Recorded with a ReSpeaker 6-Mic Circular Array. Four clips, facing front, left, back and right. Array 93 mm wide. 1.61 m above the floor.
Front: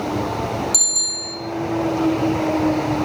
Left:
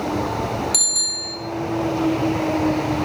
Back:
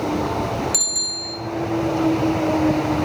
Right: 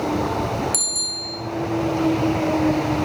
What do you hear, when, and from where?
0.7 s a bicycle bell: 135° left, 4.5 m